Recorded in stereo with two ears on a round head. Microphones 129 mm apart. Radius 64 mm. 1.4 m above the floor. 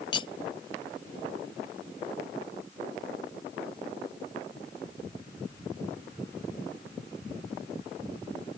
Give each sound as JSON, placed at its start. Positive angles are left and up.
{"t": 0.1, "sound": "cutlery clinking", "side_deg": 35}